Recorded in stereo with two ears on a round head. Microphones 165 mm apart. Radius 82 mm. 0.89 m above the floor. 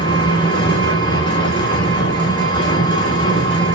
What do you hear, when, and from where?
0.0 s an engine running: 30° left (ahead or behind), 1.7 m